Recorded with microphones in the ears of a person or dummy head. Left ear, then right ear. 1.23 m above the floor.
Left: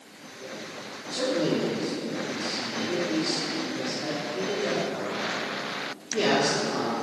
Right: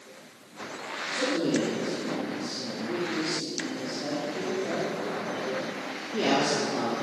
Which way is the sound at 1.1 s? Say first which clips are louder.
Left 1 dB; 10° left (ahead or behind).